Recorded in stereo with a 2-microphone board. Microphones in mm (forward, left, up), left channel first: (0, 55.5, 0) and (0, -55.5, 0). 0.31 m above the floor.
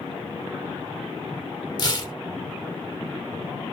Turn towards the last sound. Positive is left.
turn(degrees=40)  # may be behind; listen again after turning